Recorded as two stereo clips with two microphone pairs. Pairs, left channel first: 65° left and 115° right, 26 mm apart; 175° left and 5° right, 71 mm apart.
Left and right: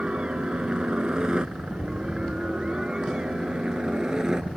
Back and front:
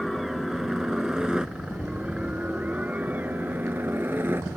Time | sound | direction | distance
0.0 | a helicopter | 100° right | ?